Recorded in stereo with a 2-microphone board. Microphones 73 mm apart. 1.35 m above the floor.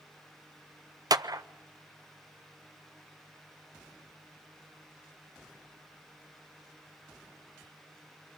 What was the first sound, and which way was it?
A clap, 55° right (ahead or behind).